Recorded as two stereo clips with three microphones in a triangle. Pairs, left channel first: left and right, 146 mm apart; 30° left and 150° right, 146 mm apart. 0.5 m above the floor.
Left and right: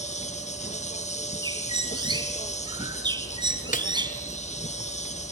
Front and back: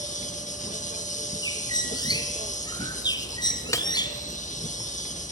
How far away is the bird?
About 3.5 m.